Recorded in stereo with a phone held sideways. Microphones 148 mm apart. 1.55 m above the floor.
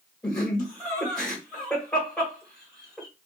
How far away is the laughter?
About 1.5 m.